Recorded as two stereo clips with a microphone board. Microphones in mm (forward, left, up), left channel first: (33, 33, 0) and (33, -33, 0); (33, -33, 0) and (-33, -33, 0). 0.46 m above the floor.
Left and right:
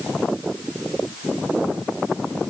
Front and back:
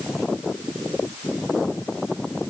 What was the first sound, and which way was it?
Only background noise.